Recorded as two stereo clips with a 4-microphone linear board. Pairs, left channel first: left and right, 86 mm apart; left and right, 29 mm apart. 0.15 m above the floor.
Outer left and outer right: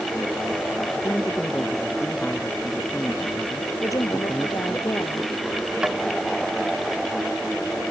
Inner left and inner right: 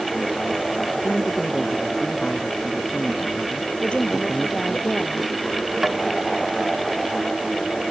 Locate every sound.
1.0 s a man speaking: 20° left (ahead or behind); by 4.8 s 10° left (ahead or behind)
3.8 s a woman speaking: 40° left (ahead or behind)
5.8 s tapping: 10° right (ahead or behind)